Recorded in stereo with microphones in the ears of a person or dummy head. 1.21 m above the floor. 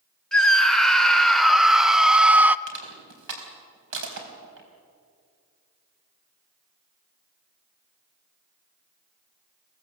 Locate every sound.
0.3 s a scream: 5° left (ahead or behind), 1.8 m; by 2.6 s 10° right (ahead or behind), 0.6 m
2.7 s crushing: 65° right (ahead or behind), 4.5 m